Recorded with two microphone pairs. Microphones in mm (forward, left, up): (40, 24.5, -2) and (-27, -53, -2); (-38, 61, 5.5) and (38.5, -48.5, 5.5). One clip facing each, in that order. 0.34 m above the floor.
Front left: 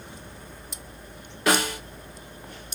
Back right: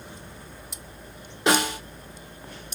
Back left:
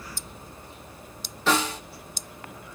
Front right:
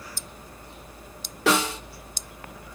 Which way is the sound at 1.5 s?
65° right.